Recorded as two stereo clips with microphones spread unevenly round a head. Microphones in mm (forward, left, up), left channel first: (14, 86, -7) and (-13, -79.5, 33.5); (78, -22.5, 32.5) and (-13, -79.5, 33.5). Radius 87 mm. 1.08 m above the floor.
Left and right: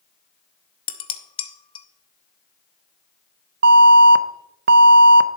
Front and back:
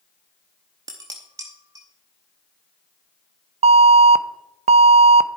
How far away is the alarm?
About 0.6 m.